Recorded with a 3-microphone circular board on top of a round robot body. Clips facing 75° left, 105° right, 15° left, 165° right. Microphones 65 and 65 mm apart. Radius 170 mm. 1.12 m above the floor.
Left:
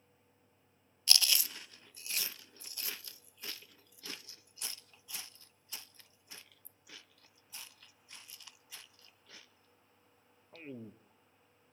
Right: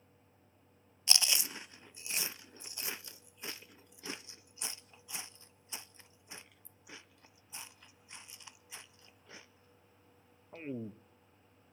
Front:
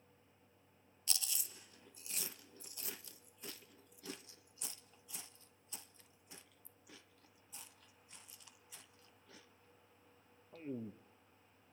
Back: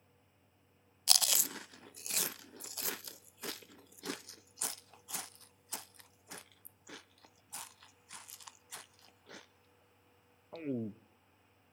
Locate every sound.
1.1 s chewing: 170° right, 0.5 m